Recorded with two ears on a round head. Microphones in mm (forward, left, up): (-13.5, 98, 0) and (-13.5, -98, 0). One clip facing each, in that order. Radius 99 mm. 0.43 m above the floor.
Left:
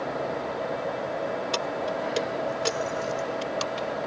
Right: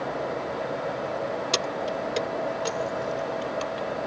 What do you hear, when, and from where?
1.5 s keys jangling: 25° right (ahead or behind); by 3.9 s 60° left (ahead or behind)